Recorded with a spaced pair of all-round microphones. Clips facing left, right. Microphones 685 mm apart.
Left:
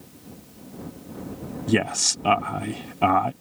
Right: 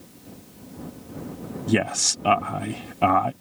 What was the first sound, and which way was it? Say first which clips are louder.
A man speaking: even; centre (ahead or behind).